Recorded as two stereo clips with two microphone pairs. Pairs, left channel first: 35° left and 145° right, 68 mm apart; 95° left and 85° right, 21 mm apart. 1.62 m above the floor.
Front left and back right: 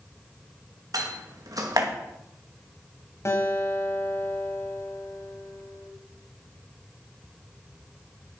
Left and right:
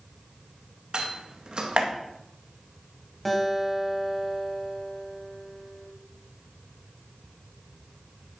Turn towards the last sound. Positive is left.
turn(degrees=15)